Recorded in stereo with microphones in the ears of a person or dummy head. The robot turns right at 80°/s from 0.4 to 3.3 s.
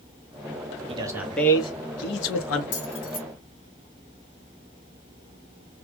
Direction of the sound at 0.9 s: 35° right.